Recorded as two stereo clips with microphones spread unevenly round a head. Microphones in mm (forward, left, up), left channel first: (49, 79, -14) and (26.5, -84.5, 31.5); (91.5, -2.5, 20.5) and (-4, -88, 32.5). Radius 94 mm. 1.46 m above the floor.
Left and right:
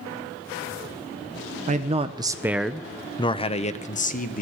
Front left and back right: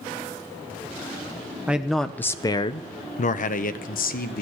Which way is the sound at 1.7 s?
60° right.